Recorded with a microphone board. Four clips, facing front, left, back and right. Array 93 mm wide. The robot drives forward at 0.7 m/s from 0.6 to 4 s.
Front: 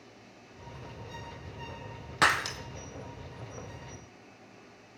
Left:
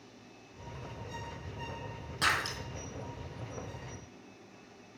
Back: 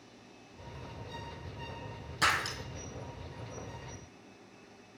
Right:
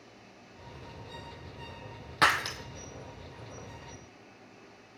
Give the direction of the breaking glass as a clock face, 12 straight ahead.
1 o'clock.